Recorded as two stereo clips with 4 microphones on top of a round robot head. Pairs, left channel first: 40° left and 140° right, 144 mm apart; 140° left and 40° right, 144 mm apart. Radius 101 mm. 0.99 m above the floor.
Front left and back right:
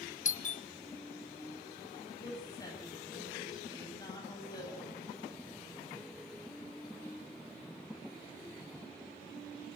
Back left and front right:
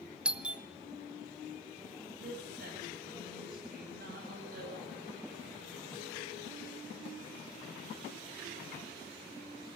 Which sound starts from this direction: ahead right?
A woman speaking, at 2.2 s.